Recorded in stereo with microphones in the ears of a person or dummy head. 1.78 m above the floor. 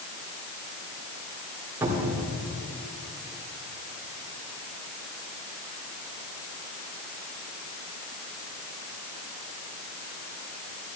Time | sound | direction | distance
1.8 | a cupboard door | 20° right (ahead or behind) | 2 m